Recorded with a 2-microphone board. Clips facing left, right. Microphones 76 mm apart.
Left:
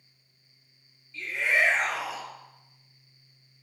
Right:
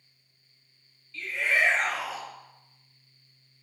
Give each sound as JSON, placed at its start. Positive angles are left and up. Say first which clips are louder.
{"t": 1.1, "sound": "a shout", "louder": "left 1 dB", "side_deg": 20, "distance_m": 1.1}